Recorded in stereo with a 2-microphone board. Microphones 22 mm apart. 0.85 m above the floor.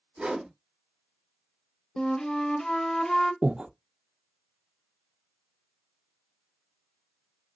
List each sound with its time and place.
0.2 s a whoosh: 60° right (ahead or behind), 2.5 m
2.0 s a flute: 30° left (ahead or behind), 0.7 m
3.4 s breathing: 55° right (ahead or behind), 0.5 m